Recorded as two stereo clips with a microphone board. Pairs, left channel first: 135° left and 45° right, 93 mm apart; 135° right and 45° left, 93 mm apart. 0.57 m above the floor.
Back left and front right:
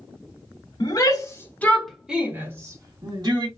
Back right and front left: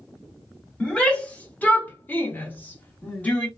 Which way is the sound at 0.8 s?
150° left.